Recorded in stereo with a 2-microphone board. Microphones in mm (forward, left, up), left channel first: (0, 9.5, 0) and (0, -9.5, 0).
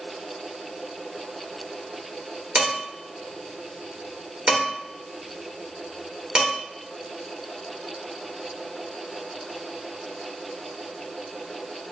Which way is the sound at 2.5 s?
45° right (ahead or behind).